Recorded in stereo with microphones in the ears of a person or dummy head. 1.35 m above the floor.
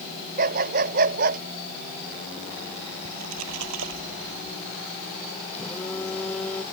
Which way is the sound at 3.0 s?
80° right.